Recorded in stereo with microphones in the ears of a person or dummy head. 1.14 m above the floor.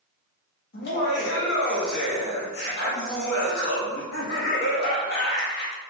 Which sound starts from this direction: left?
Laughter, at 0.7 s.